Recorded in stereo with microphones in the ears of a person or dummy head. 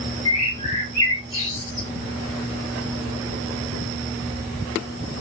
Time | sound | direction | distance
0.2 | a bird | 20° left (ahead or behind) | 1.2 m